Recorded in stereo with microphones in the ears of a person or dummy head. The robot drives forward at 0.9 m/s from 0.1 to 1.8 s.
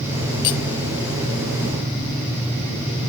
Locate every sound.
0.4 s cutlery clinking: 55° left (ahead or behind), 1.2 m; by 0.6 s 60° left (ahead or behind), 1.2 m